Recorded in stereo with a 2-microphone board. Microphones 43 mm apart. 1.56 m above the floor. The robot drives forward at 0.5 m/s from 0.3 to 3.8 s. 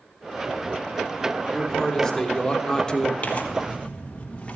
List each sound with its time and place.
1.5 s a man speaking: 10° left (ahead or behind), 1.9 m; by 3.1 s 20° left (ahead or behind), 1.1 m
3.2 s tearing paper: 35° left (ahead or behind), 1.2 m; by 4.6 s 30° left (ahead or behind), 1.5 m